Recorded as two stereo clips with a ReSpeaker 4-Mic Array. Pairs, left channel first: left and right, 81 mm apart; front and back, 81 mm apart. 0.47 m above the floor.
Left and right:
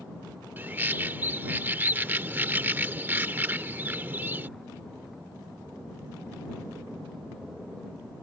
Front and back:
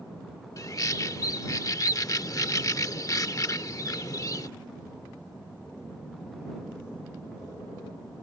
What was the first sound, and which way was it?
A bird, 30° right.